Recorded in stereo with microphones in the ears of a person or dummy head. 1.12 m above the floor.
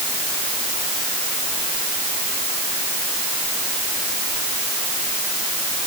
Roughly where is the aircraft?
I don't hear an aircraft.